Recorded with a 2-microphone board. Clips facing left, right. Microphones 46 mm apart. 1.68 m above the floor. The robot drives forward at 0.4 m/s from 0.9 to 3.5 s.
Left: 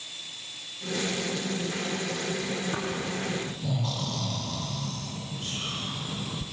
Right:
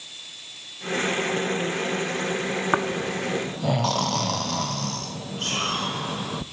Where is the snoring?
60° right (ahead or behind), 1.0 m; by 6.4 s 70° right (ahead or behind), 0.9 m.